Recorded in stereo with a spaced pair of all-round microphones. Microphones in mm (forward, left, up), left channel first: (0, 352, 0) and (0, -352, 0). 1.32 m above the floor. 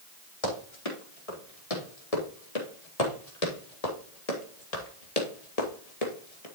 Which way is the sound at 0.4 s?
50° left (ahead or behind).